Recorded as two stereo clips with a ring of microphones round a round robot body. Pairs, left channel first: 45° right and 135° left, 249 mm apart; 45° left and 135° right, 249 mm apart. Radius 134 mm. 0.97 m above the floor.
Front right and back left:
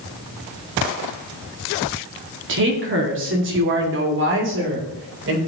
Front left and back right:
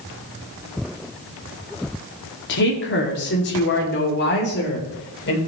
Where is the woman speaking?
90° left, 2 m; by 5.4 s 95° left, 3.5 m.